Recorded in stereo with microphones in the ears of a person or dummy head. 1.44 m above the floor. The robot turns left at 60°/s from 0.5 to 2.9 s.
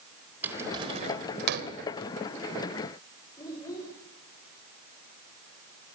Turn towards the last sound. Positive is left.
turn(degrees=25)  # may be behind; listen again after turning